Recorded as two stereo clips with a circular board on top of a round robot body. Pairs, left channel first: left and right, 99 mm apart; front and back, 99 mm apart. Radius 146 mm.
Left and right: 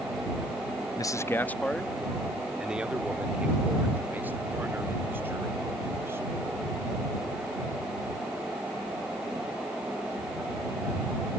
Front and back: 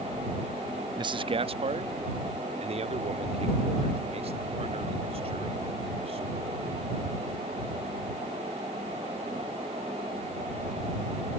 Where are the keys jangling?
I don't hear keys jangling.